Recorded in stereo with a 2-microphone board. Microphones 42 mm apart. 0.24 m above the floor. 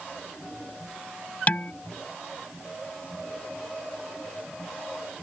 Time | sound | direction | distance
1.5 | dishes clattering | 40° left (ahead or behind) | ?